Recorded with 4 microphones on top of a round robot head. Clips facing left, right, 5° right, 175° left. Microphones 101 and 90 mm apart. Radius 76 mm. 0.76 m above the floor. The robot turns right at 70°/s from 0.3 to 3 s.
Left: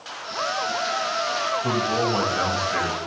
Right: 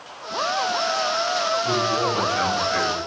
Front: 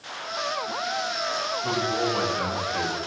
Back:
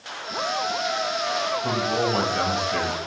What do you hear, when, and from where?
1.6 s a man speaking: 100° left, 3.5 m; by 3.0 s 165° right, 3.5 m